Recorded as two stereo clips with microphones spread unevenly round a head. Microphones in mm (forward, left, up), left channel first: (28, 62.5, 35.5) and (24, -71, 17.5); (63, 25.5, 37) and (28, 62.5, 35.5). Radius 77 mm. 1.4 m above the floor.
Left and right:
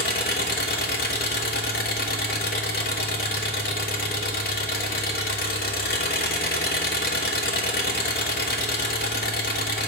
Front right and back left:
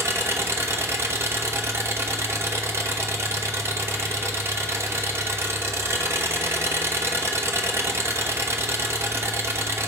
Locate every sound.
0.0 s an engine running: 100° left, 1.0 m